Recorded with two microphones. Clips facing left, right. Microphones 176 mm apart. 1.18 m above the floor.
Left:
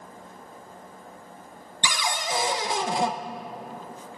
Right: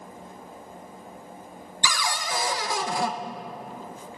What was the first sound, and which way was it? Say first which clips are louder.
A cupboard door: left 1 dB; 20° left (ahead or behind).